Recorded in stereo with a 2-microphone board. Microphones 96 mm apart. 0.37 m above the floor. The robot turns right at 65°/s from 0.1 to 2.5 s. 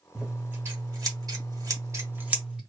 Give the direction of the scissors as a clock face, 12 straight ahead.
6 o'clock.